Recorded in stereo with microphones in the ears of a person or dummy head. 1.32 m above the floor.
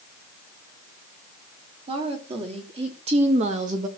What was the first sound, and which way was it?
A woman speaking, 30° right (ahead or behind).